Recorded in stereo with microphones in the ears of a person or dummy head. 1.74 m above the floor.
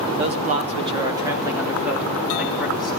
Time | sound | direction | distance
0.2 | a man speaking | 45° right (ahead or behind) | 0.8 m